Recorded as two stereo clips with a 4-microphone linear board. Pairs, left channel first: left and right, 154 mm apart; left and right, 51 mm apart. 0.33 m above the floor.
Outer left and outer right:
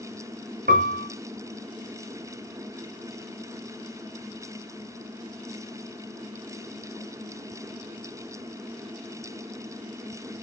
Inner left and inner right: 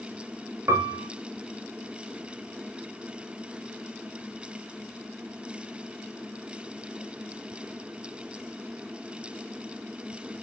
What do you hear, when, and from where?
0.7 s a piano: 75° right (ahead or behind), 1.0 m